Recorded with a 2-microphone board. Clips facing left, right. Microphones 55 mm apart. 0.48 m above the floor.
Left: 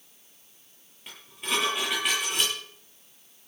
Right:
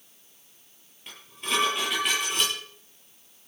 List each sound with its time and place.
1.1 s dishes clattering: centre (ahead or behind), 9 m